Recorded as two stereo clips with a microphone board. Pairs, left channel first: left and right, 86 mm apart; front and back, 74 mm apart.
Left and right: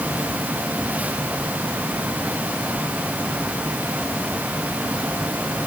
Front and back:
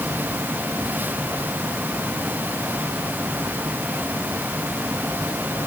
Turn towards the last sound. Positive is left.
No sound to turn to.